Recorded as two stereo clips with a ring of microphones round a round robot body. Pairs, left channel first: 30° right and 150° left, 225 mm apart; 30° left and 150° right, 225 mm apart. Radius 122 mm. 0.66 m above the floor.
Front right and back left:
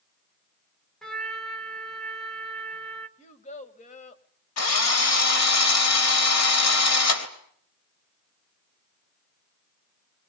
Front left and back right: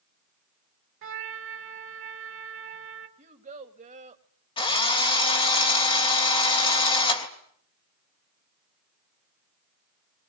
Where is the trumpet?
120° right, 1.6 m.